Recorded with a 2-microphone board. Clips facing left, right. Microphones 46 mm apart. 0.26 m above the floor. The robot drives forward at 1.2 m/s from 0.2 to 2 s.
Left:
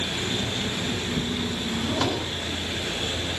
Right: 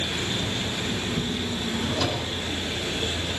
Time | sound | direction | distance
1.7 | a drawer | 50° left (ahead or behind) | 3 m